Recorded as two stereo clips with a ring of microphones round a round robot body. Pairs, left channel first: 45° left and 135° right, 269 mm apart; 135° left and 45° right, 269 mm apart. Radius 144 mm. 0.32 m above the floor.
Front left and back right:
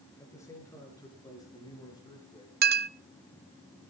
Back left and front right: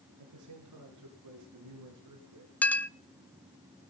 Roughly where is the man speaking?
Ahead right.